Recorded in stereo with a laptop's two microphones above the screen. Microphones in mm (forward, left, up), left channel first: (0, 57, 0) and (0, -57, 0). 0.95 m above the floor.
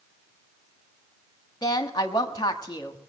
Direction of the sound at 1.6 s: 35° left (ahead or behind).